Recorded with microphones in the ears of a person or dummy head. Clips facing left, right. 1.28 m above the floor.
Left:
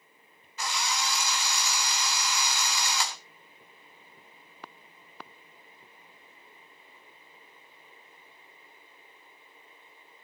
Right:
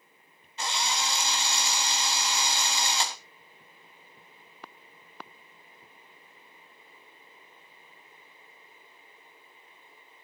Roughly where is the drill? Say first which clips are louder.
Right 1 dB; right.